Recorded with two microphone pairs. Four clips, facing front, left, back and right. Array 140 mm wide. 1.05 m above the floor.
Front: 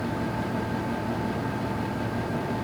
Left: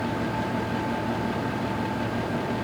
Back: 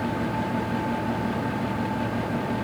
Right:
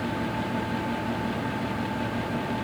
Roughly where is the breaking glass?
I don't hear breaking glass.